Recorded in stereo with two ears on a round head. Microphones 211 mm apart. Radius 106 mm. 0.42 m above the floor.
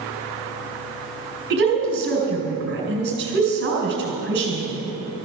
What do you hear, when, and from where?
1.5 s a woman speaking: 45° right (ahead or behind), 4.5 m